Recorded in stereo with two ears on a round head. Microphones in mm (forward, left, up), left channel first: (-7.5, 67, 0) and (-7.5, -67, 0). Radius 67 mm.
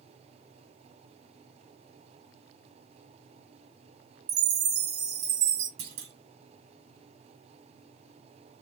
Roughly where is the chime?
Right.